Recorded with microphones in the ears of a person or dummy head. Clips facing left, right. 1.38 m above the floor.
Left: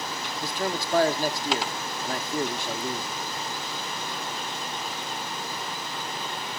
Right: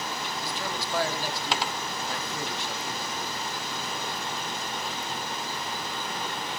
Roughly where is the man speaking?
Left.